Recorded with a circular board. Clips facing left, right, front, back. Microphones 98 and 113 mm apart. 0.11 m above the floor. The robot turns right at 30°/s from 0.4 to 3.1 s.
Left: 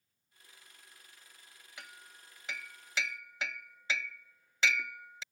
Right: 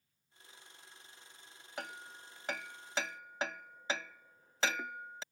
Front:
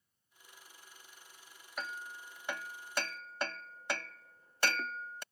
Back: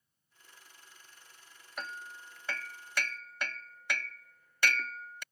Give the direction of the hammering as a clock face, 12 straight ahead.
3 o'clock.